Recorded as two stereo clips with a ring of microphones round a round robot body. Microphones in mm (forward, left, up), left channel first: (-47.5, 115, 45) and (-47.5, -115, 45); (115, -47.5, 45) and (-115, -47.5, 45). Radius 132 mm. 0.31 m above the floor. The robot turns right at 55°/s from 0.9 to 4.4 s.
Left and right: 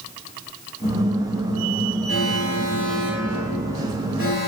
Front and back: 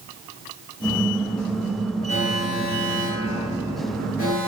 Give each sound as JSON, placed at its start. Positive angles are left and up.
{"t": 2.1, "sound": "an alarm", "azimuth_deg": -60, "distance_m": 6.5}